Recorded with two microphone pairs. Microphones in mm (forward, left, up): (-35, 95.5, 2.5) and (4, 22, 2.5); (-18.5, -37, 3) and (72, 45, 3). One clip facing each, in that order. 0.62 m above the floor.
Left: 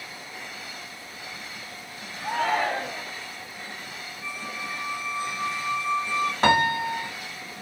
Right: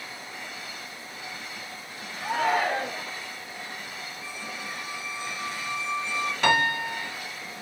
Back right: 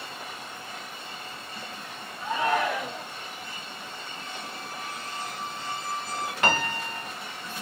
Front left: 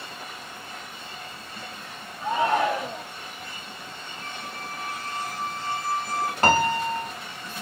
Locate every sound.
2.2 s a shout: 25° left, 1.0 m
4.2 s a squeak: 80° left, 1.4 m
6.4 s a piano: 80° left, 1.1 m